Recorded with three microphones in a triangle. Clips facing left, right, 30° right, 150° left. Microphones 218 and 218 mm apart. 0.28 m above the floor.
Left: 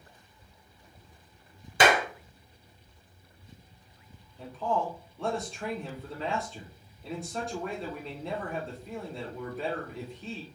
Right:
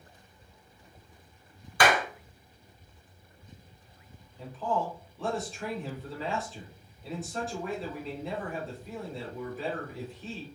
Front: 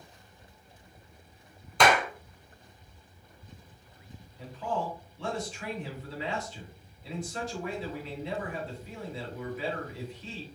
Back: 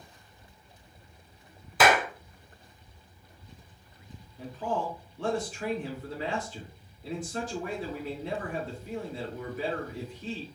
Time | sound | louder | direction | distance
1.8 | a clap | left 2 dB, back 1 dB | 70° left | 0.7 m
4.4 | a man speaking | left 1 dB, back 2 dB | straight behind | 2.5 m